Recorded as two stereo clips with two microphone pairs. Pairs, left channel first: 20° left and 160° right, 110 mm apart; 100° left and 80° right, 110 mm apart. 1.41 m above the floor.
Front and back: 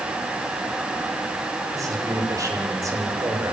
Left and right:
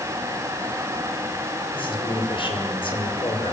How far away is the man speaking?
About 6 m.